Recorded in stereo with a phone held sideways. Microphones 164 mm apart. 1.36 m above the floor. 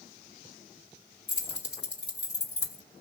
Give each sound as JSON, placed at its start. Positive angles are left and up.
{"t": 1.3, "sound": "keys jangling", "side_deg": 75, "distance_m": 1.9}